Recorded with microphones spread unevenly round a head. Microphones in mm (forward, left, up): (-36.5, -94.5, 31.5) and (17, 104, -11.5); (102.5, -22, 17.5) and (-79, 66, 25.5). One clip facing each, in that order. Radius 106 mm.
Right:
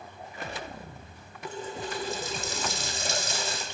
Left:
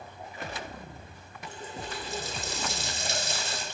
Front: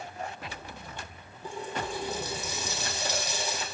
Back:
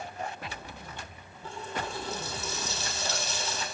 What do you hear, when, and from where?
1.4 s a running tap: 105° right, 3.5 m